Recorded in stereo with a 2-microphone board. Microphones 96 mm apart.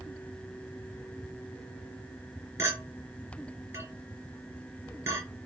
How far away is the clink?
About 3.5 m.